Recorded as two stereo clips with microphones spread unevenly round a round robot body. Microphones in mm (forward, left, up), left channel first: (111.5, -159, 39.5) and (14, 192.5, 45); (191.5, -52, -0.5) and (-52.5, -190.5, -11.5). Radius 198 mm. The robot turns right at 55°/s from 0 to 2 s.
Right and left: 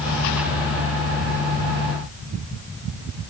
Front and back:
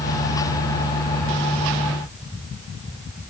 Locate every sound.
Only background noise.